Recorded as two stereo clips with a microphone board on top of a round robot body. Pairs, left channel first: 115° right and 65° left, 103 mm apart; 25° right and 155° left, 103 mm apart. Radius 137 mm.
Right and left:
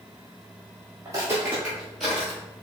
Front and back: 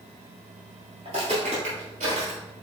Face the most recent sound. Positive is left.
turn(degrees=165)